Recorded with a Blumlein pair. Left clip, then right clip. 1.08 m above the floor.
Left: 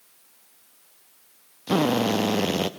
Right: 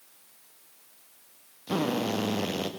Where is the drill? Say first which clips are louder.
Left 6 dB; 20° left, 1.6 m.